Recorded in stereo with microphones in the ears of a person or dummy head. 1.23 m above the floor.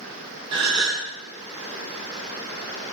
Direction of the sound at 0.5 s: 30° right (ahead or behind).